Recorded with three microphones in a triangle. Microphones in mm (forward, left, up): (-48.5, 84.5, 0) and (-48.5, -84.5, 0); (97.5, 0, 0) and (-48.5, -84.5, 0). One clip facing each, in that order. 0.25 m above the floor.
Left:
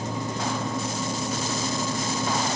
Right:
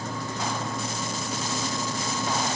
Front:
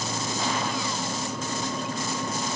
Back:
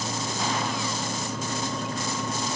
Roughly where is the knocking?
I don't hear knocking.